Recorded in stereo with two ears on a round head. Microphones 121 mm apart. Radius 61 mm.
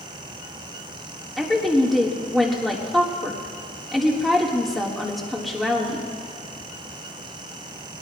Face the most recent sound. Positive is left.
turn(degrees=0)  # may be behind; listen again after turning